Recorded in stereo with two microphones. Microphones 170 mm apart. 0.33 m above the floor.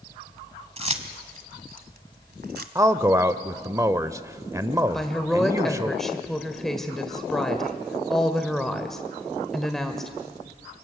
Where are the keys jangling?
35° right (ahead or behind), 1.5 m; by 2.6 s 65° right (ahead or behind), 1.5 m.